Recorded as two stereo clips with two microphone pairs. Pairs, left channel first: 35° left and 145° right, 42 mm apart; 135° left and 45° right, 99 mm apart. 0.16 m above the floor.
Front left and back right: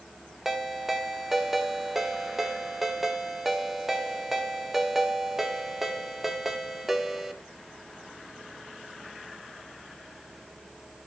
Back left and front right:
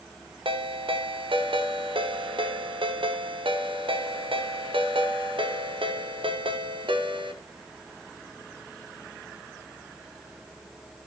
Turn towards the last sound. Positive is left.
turn(degrees=-65)